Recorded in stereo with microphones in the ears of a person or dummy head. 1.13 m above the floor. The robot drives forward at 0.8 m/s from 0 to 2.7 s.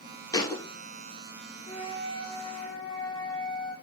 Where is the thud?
25° left (ahead or behind), 3 m; by 0.6 s 20° left (ahead or behind), 3 m.